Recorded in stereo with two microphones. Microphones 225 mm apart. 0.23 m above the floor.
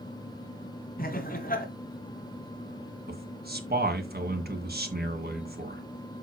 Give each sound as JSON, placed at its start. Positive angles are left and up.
{"t": 1.0, "sound": "laughter", "side_deg": 40, "distance_m": 2.0}
{"t": 3.1, "sound": "a man speaking", "side_deg": -45, "distance_m": 2.0}